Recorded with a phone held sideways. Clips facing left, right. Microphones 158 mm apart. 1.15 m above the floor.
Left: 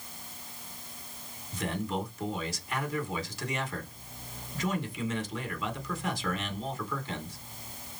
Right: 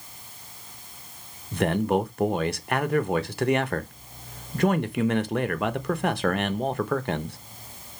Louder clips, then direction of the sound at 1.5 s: Right 10 dB; 65° right (ahead or behind).